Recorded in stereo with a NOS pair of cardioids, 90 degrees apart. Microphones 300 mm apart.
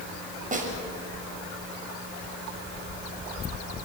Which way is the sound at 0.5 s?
25° right.